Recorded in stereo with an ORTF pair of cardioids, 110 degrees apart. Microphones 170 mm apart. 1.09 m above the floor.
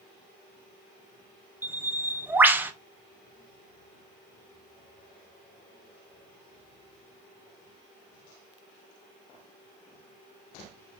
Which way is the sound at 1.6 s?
10° right.